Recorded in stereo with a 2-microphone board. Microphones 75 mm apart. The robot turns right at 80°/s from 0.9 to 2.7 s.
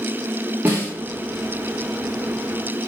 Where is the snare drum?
25° right (ahead or behind), 2 m.